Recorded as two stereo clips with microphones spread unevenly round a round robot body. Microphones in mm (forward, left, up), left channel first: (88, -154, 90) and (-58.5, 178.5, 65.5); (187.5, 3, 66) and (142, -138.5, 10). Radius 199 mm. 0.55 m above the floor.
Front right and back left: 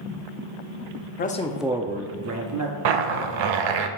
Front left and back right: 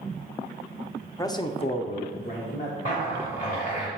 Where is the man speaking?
20° right, 0.7 m; by 2.8 s 120° left, 1.0 m.